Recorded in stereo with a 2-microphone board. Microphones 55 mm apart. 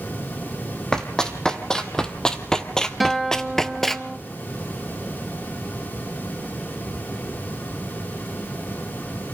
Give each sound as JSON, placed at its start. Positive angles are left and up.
{"t": 0.9, "sound": "running footsteps", "side_deg": 10, "distance_m": 2.0}
{"t": 3.0, "sound": "a guitar", "side_deg": 0, "distance_m": 1.4}